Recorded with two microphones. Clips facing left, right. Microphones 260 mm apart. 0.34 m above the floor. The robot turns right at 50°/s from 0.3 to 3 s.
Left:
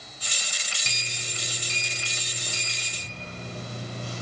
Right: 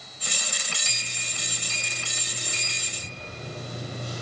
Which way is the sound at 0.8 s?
65° left (ahead or behind).